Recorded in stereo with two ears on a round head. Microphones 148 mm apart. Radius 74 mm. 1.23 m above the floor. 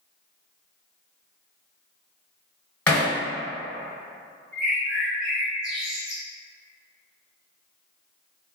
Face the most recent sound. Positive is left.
turn(degrees=-5)  # may be behind; listen again after turning